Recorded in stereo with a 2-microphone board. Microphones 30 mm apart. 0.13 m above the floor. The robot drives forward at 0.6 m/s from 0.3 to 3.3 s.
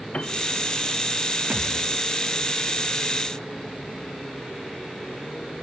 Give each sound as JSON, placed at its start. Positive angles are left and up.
{"t": 0.1, "sound": "a piano", "side_deg": 50, "distance_m": 0.5}
{"t": 1.5, "sound": "a thud", "side_deg": -75, "distance_m": 4.0}